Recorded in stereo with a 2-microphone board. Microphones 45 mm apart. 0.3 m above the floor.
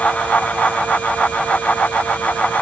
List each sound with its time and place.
Only background noise.